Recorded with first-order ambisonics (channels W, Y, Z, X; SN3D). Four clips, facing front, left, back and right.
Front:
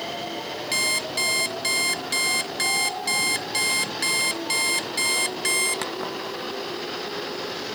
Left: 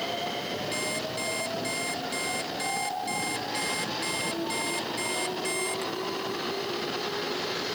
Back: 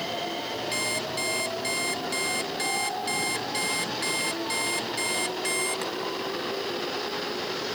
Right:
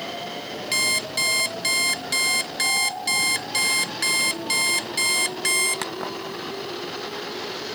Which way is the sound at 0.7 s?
60° right.